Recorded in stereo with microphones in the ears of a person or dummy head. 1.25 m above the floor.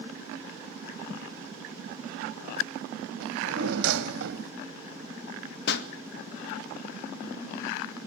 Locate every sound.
3.2 s a drawer: 60° right (ahead or behind), 2 m
5.7 s a pop: 65° left (ahead or behind), 1.8 m